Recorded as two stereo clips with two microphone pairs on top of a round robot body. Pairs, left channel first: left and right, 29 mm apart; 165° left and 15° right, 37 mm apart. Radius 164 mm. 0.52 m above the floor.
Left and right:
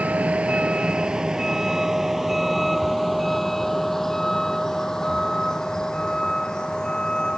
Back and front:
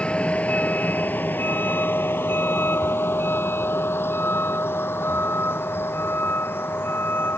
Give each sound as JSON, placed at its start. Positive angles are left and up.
{"t": 0.0, "sound": "a vehicle", "azimuth_deg": -135}